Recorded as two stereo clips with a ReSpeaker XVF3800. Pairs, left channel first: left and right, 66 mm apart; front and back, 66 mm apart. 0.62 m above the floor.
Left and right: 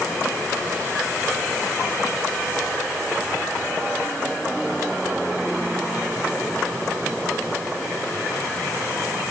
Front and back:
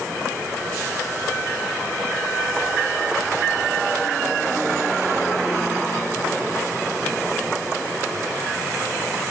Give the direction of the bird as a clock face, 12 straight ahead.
No bird in this recording.